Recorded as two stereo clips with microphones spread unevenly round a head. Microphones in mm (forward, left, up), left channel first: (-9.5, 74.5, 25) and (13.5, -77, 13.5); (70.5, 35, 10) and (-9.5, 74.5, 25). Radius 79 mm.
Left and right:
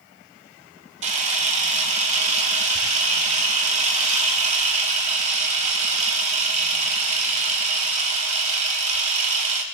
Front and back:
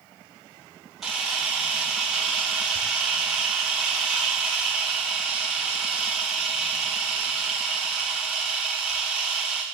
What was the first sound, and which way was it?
A camera shutter, 125° right.